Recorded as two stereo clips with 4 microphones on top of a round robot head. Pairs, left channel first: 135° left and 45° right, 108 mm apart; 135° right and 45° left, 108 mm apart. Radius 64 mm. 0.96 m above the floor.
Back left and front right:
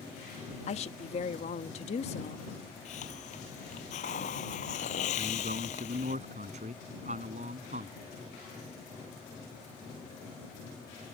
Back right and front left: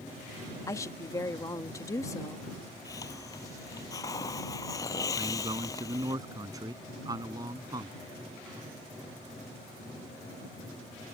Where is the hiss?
160° left.